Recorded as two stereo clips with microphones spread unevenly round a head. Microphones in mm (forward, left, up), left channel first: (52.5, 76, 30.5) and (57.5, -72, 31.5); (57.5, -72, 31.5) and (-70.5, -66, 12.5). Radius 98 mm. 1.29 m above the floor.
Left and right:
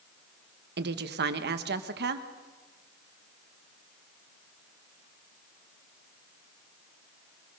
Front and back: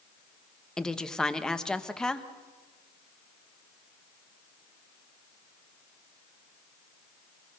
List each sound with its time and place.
0.8 s a woman speaking: 90° right, 1.3 m